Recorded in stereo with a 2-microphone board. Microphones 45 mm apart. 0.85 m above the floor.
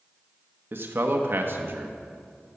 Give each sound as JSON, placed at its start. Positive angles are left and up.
{"t": 0.7, "sound": "a man speaking", "side_deg": -55, "distance_m": 1.0}